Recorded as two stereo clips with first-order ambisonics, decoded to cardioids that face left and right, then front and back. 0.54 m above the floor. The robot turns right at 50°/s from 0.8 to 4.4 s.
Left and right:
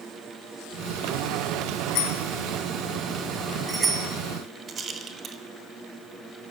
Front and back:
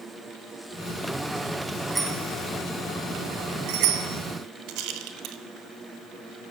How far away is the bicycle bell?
About 3 m.